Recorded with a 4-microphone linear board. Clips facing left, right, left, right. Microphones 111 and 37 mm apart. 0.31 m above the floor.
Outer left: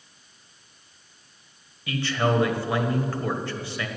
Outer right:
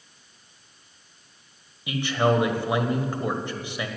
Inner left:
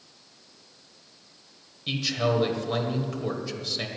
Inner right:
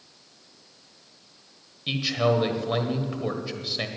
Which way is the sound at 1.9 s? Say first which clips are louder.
Outer right 2 dB, inner right 2 dB; 20° right (ahead or behind).